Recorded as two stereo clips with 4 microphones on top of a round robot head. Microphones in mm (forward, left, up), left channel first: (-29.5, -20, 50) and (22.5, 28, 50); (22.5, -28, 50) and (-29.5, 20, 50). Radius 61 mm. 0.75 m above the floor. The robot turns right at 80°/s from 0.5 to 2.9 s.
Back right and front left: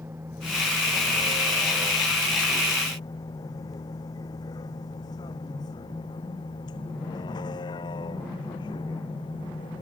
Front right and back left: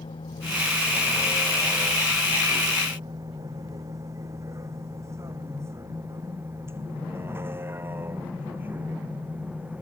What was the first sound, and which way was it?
A vehicle, 20° right.